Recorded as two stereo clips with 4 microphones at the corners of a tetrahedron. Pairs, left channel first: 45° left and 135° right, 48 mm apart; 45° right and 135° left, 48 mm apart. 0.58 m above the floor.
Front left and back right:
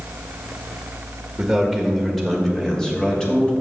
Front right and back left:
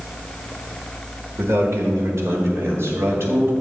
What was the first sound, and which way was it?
A man speaking, 145° left.